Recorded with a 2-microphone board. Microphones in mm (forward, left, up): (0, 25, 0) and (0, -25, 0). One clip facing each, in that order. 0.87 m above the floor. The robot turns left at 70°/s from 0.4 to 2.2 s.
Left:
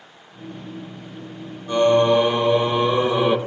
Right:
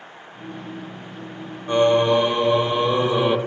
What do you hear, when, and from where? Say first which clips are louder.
1.7 s singing: left 1 dB; 140° right, 0.8 m; by 3.4 s straight behind, 0.8 m